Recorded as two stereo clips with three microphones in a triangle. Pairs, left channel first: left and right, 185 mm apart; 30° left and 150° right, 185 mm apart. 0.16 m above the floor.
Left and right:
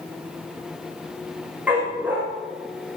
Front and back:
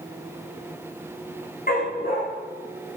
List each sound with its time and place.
1.7 s a dog barking: 10° right, 5.5 m